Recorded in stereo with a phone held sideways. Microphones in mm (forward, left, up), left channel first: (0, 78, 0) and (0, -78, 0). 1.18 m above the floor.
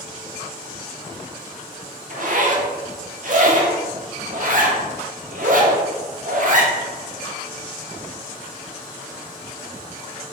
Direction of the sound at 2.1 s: 60° right (ahead or behind).